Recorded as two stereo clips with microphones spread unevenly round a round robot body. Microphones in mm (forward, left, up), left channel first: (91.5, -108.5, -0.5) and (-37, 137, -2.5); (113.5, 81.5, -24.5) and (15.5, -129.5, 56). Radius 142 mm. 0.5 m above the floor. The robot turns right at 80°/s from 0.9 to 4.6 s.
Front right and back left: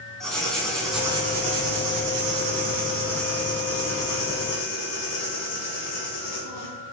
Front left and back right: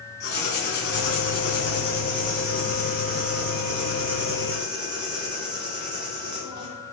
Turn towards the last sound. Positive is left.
turn(degrees=-40)